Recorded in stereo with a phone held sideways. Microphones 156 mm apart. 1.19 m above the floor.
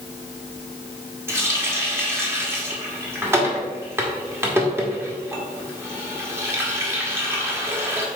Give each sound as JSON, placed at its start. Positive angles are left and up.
{"t": 1.3, "sound": "a running tap", "side_deg": -15, "distance_m": 1.4}